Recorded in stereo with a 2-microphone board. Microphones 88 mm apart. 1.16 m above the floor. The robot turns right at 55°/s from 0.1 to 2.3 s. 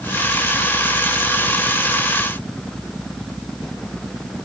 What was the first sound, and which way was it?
Only background noise.